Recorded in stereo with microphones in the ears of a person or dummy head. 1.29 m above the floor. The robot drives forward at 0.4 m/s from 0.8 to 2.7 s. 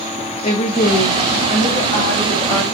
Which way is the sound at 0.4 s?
35° left (ahead or behind).